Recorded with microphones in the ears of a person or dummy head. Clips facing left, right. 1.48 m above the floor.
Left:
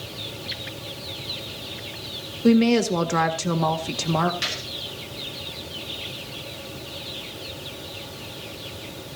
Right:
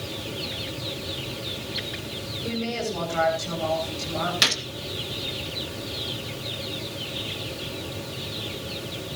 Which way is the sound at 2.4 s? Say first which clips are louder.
Left 12 dB; 75° left (ahead or behind).